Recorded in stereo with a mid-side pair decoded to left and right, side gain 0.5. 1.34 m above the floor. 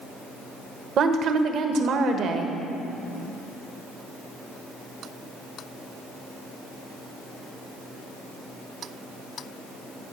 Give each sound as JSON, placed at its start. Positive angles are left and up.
{"t": 1.0, "sound": "a woman speaking", "azimuth_deg": -60, "distance_m": 1.4}